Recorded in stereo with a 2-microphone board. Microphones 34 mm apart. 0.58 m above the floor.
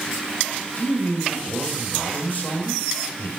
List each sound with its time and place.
0.8 s a man speaking: 65° left (ahead or behind), 3 m